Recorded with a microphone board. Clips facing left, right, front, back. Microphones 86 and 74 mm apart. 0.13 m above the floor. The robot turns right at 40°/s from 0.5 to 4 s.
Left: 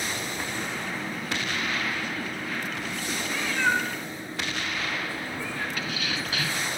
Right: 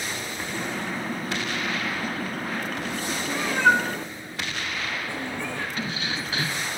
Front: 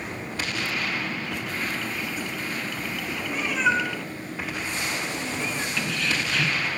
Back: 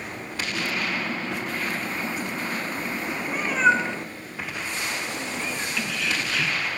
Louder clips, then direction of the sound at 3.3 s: Right 6 dB, back 3 dB; 140° right.